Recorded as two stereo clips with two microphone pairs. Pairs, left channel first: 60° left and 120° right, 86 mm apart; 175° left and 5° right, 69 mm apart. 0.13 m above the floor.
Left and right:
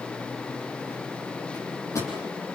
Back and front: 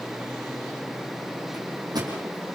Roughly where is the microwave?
Ahead.